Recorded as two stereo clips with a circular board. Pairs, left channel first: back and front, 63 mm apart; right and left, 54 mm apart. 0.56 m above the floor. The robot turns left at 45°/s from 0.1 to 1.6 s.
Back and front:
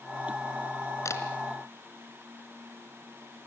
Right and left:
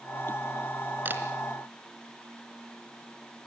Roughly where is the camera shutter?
Behind left.